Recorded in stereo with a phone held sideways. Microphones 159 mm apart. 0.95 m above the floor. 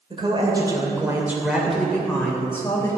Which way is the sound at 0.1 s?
35° right (ahead or behind).